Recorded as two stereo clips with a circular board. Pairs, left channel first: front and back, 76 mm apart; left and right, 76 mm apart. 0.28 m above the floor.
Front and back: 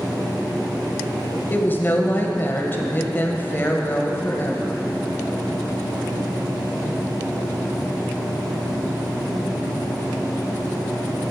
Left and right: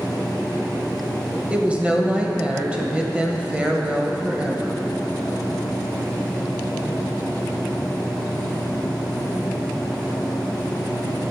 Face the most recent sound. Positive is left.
turn(degrees=-30)